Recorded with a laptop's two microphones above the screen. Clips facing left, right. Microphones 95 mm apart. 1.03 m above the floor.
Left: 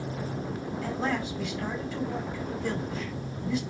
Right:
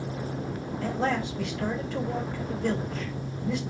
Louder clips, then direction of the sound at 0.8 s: Right 3 dB; 80° right.